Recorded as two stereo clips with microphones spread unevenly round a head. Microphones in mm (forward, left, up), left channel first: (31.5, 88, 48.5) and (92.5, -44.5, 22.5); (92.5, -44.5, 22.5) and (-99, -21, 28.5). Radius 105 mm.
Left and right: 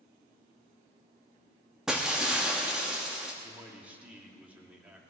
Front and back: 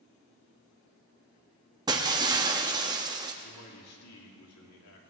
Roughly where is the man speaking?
Ahead.